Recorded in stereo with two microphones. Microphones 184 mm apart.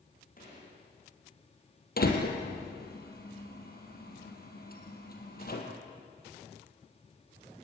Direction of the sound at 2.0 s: 55° left (ahead or behind).